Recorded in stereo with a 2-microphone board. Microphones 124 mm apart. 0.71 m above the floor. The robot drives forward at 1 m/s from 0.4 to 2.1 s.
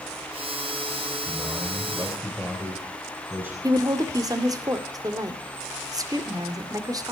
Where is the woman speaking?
30° right (ahead or behind), 2 m.